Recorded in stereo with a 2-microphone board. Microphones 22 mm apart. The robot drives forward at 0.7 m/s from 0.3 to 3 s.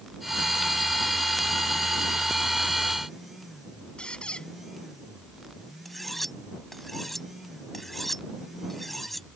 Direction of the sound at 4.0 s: 45° left (ahead or behind).